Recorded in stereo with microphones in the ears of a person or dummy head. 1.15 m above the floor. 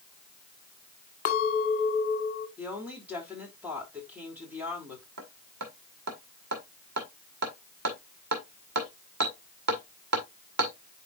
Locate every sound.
1.2 s a clink: 45° left (ahead or behind), 1.8 m
2.6 s a woman speaking: 5° right (ahead or behind), 3.5 m
5.2 s hammering: 55° right (ahead or behind), 1.9 m